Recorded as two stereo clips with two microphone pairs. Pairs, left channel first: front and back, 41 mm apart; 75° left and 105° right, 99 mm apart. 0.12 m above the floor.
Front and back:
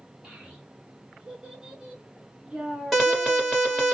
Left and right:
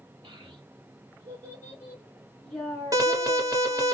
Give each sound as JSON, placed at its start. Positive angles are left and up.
{"t": 0.2, "sound": "a child speaking", "azimuth_deg": -110, "distance_m": 1.4}
{"t": 2.9, "sound": "an alarm", "azimuth_deg": -90, "distance_m": 1.5}